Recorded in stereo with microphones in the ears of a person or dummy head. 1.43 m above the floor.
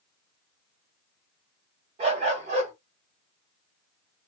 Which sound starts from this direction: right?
A dog barking, at 2.0 s.